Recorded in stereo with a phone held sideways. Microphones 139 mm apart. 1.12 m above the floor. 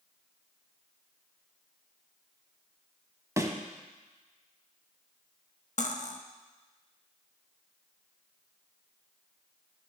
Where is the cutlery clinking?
55° left (ahead or behind), 0.8 m.